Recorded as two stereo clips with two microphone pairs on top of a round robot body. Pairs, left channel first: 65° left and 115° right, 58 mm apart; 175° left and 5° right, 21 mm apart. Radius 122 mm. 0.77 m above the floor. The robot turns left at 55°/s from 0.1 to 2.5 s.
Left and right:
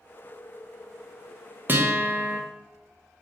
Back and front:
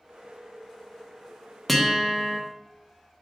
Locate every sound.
1.7 s a guitar: 100° right, 0.8 m; by 2.4 s 135° right, 0.8 m